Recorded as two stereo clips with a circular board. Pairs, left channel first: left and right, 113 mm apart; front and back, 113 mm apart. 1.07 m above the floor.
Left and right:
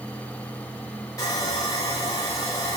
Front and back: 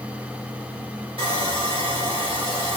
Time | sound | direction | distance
1.2 | sawing | 150° left | 2.0 m